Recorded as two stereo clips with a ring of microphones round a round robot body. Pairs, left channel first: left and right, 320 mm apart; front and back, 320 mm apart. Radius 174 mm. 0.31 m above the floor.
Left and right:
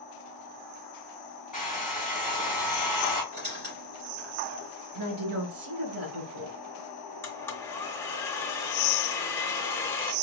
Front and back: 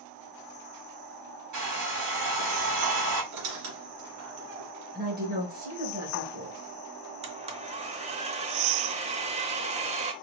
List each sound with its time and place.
1.5 s a hair dryer: 175° right, 2.5 m
3.3 s a squeak: 155° right, 2.0 m
5.0 s a woman speaking: 125° right, 1.4 m
7.2 s a blender: 160° left, 0.7 m